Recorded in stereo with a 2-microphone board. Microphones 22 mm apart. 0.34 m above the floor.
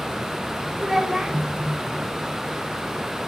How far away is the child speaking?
About 0.9 m.